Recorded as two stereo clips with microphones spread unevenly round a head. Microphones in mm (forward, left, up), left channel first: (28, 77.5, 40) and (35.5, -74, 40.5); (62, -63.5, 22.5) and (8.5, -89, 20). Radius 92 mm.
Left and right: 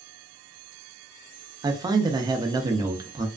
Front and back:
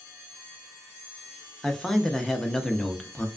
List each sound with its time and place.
1.6 s a man speaking: 55° right, 0.6 m